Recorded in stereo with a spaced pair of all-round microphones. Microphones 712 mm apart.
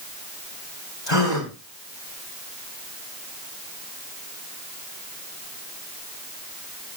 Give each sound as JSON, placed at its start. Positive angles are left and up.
{"t": 1.1, "sound": "a gasp", "side_deg": 35, "distance_m": 3.5}